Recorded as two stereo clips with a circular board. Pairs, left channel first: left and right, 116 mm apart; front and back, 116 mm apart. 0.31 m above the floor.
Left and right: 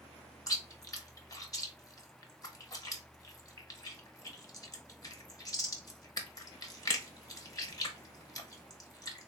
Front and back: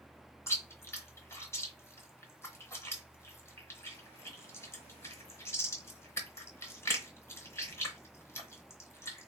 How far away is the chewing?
About 0.8 m.